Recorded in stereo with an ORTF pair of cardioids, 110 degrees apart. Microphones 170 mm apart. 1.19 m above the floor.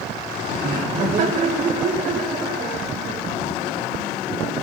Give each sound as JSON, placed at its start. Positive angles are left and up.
{"t": 0.6, "sound": "laughter", "azimuth_deg": -50, "distance_m": 2.5}